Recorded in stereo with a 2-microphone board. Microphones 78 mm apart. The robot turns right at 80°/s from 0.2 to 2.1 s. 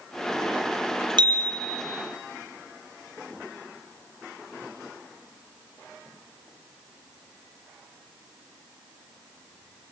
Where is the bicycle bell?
95° right, 4.5 m; by 1.8 s 45° right, 4.5 m.